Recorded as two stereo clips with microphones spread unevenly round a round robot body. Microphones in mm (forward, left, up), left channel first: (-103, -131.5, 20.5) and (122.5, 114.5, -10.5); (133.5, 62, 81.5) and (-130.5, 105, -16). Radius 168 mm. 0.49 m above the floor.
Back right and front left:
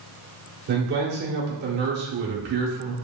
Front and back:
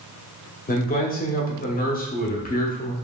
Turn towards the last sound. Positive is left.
turn(degrees=60)